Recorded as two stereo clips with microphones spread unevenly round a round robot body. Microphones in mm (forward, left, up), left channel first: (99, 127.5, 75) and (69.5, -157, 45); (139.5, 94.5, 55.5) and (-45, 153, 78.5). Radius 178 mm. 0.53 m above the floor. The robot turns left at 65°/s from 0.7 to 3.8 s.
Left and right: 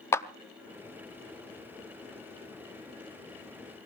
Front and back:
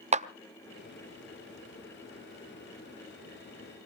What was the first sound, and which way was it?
A clap, 165° left.